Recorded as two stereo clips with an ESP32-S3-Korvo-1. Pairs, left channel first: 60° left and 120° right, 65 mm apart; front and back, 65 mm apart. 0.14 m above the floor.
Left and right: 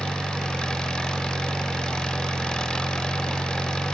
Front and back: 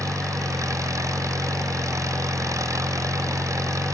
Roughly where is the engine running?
Behind left.